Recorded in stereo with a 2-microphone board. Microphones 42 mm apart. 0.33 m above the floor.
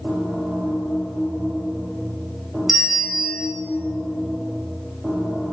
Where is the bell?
5° right (ahead or behind), 3 m.